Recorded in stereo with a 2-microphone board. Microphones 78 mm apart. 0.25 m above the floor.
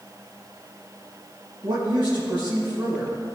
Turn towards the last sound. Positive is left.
turn(degrees=-75)  # may be behind; listen again after turning